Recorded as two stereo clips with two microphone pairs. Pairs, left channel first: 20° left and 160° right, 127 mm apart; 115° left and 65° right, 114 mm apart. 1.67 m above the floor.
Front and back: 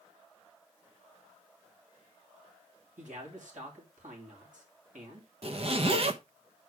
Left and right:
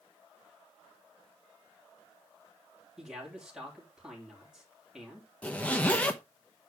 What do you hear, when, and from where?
3.0 s a man speaking: 150° right, 3.5 m
5.4 s a zipper: 170° right, 1.0 m